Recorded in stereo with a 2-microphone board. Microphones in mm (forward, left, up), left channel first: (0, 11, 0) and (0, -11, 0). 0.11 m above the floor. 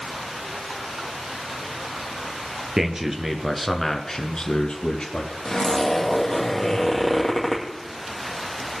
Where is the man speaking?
25° right (ahead or behind), 1.7 m; by 5.3 s 40° left (ahead or behind), 2.0 m.